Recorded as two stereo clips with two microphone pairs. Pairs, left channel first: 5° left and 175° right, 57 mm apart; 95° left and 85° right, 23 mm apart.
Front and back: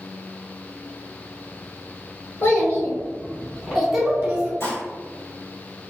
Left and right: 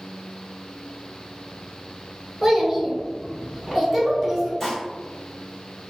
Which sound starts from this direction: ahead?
A child speaking, at 2.4 s.